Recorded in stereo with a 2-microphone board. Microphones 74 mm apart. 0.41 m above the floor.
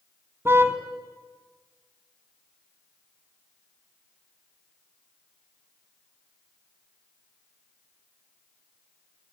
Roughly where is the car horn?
Right.